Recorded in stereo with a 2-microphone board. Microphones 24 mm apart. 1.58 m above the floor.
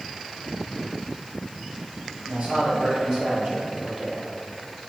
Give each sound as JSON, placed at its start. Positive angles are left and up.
{"t": 2.3, "sound": "a man speaking", "side_deg": -60, "distance_m": 2.0}